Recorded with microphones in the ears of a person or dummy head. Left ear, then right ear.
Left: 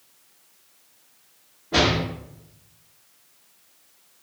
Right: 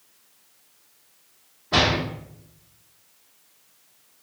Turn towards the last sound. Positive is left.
turn(degrees=-60)  # may be behind; listen again after turning